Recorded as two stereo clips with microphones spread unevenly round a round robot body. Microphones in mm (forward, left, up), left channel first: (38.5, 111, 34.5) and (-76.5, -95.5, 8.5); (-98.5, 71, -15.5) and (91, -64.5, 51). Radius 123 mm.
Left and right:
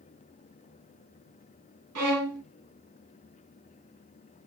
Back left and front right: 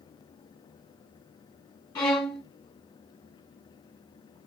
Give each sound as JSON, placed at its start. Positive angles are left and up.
{"t": 1.9, "sound": "a violin", "azimuth_deg": -135, "distance_m": 1.4}